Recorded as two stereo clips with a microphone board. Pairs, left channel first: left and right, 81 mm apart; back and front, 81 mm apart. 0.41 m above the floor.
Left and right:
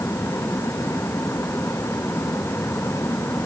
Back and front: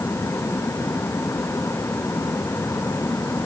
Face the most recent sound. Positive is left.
No sound to turn to.